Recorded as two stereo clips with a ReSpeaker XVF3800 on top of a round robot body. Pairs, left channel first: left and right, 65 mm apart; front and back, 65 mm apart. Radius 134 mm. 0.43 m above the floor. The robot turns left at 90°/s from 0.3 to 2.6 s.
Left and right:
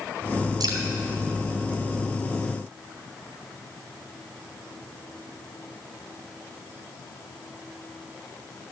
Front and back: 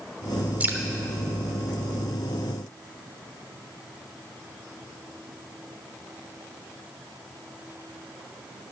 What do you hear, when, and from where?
0.6 s dripping: 115° right, 0.9 m; by 0.8 s 130° right, 0.9 m